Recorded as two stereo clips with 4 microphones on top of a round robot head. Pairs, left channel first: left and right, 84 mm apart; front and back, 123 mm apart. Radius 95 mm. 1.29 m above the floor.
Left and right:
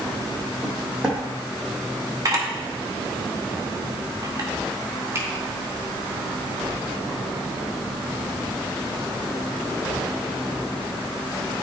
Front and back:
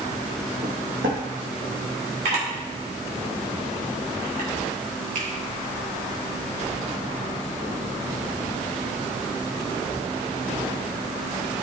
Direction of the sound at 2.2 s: 140° right.